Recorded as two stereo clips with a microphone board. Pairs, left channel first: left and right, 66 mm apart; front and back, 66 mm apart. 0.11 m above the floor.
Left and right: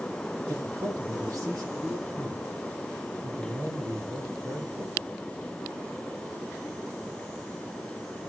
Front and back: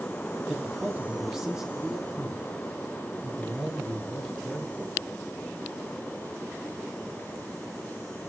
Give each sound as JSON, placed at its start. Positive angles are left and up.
{"t": 0.5, "sound": "a man speaking", "azimuth_deg": -105, "distance_m": 3.0}